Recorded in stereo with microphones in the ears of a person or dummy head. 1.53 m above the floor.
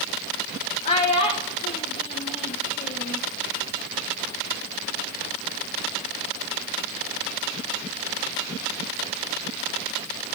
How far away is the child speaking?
About 0.5 m.